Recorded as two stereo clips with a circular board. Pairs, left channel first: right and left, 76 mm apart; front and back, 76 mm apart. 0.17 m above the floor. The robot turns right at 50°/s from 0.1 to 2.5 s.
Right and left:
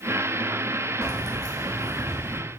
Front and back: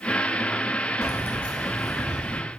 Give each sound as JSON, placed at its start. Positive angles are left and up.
{"t": 1.0, "sound": "keys jangling", "azimuth_deg": 55, "distance_m": 1.0}